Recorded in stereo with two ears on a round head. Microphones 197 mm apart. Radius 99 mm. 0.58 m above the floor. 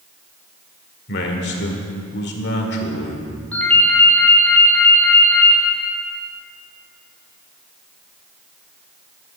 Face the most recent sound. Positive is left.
turn(degrees=5)  # may be behind; listen again after turning